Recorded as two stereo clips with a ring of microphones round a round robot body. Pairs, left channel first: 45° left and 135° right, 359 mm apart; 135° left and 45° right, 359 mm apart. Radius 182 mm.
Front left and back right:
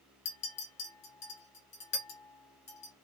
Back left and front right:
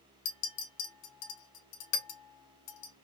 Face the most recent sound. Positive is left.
turn(degrees=115)